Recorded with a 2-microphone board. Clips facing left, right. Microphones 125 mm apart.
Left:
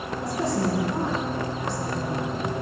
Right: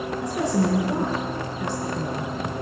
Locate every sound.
0.2 s a woman speaking: 75° right (ahead or behind), 6 m